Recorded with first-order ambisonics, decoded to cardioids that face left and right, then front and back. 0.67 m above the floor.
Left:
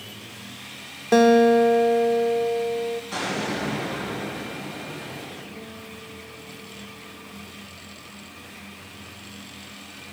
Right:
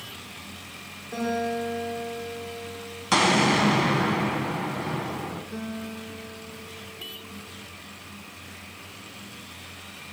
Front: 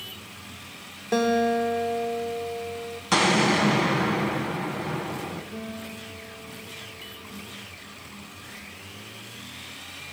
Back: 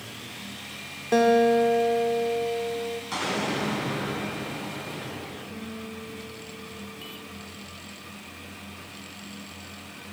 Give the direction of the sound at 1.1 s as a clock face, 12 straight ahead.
9 o'clock.